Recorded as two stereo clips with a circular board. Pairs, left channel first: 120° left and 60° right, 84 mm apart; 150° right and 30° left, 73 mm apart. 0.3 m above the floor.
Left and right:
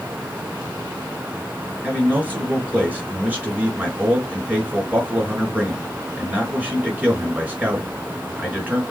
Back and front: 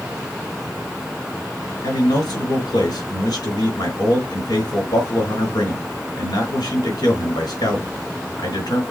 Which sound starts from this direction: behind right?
A man speaking, at 1.8 s.